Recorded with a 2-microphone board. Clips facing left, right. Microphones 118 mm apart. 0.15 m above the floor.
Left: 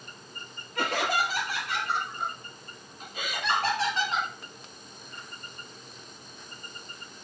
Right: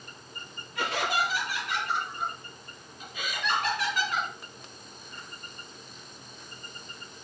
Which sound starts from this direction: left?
Laughter, at 0.8 s.